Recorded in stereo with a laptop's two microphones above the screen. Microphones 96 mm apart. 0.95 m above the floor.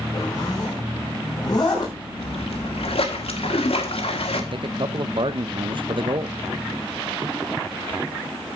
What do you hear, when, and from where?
0.1 s a zipper: 40° left (ahead or behind), 5.5 m
2.2 s a splash: 75° left (ahead or behind), 1.6 m
4.5 s a man speaking: 55° right (ahead or behind), 0.6 m